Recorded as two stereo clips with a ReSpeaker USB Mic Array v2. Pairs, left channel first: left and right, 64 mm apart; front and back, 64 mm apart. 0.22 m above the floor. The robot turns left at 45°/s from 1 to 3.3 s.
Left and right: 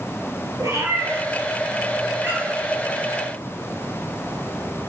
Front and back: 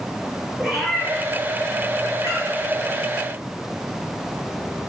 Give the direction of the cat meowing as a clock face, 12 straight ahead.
3 o'clock.